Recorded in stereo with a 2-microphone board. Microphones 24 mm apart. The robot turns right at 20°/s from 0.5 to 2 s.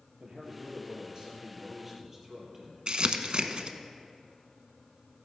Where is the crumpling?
50° right (ahead or behind), 0.8 m.